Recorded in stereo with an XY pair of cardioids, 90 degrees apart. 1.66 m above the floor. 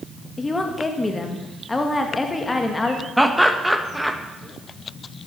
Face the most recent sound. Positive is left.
turn(degrees=0)